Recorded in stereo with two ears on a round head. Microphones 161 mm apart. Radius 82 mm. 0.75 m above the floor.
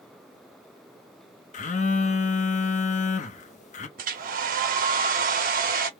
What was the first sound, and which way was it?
A phone buzzing, 45° left (ahead or behind).